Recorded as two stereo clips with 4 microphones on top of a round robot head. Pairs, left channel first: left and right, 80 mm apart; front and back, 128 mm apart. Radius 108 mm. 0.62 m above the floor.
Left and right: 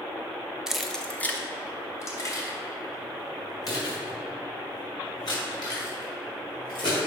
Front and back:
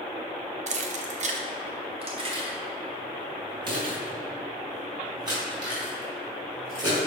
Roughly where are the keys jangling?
Behind.